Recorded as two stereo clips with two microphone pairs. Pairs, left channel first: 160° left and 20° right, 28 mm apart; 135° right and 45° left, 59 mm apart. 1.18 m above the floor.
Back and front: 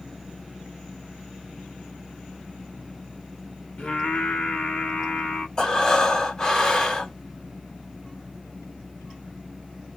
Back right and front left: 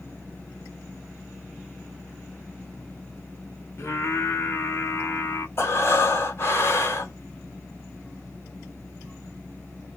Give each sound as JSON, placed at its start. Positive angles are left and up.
{"t": 3.8, "sound": "singing", "azimuth_deg": 180, "distance_m": 1.0}
{"t": 5.6, "sound": "breathing", "azimuth_deg": -150, "distance_m": 1.1}